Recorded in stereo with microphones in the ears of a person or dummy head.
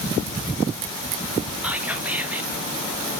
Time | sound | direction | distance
1.6 | whispering | 10° right (ahead or behind) | 1.6 m